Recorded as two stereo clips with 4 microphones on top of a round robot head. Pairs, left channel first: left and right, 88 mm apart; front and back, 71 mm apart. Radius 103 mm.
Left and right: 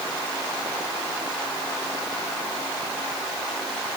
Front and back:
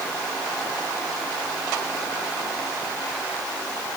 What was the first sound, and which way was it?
Only background noise.